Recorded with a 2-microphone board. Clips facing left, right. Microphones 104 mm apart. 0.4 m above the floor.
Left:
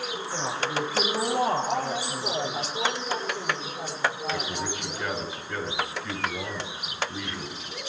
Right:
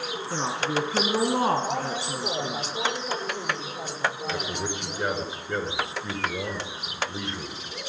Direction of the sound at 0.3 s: 70° right (ahead or behind).